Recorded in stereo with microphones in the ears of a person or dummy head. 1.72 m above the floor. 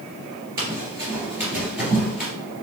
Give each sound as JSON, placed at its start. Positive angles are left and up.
{"t": 0.6, "sound": "running footsteps", "side_deg": -25, "distance_m": 2.0}